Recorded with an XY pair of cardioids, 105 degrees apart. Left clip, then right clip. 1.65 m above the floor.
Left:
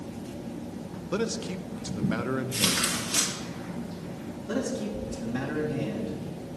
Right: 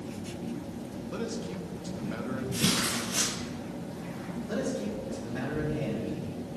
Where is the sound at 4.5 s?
65° left, 2.5 m.